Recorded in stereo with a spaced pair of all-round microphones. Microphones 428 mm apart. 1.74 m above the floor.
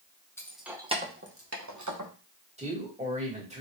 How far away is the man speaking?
About 2.5 m.